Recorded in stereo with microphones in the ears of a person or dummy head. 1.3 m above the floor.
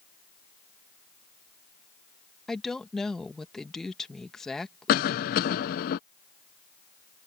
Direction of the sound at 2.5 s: 5° left (ahead or behind).